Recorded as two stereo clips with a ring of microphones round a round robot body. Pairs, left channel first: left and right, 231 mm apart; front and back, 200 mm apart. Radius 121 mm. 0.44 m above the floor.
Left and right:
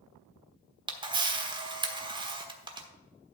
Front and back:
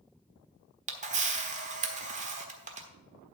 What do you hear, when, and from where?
0.9 s a camera shutter: 150° right, 1.3 m